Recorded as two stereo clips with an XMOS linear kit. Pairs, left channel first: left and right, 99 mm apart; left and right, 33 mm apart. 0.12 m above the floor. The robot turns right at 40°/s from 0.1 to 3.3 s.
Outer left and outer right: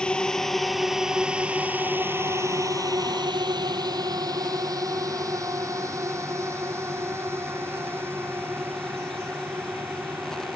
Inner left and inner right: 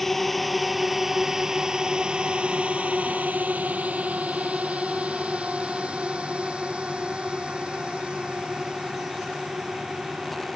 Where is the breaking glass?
No breaking glass in this recording.